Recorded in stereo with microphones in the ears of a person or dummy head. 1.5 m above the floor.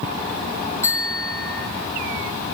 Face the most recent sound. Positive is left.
turn(degrees=20)  # may be behind; listen again after turning